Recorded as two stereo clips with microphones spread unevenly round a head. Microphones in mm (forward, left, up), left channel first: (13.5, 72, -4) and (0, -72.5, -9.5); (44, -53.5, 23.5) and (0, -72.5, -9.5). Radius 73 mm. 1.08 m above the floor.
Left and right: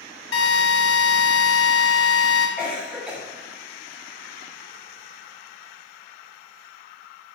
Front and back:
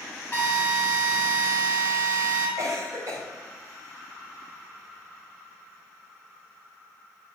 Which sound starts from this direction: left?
A drill, at 0.3 s.